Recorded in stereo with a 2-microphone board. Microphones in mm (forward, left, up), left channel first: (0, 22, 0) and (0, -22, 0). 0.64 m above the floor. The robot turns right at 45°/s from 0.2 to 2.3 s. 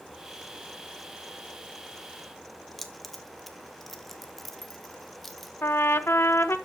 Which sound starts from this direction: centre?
Keys jangling, at 2.8 s.